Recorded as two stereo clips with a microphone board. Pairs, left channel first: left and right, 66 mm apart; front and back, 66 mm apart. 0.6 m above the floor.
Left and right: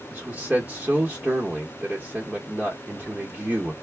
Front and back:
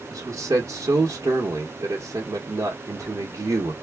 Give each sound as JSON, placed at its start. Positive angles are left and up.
{"t": 0.1, "sound": "a man speaking", "azimuth_deg": -150, "distance_m": 1.0}